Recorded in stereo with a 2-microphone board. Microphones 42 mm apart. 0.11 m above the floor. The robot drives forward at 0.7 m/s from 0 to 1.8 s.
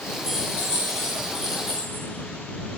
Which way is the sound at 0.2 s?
10° left (ahead or behind).